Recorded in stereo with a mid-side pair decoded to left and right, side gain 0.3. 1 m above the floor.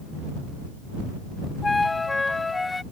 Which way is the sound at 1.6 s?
30° left.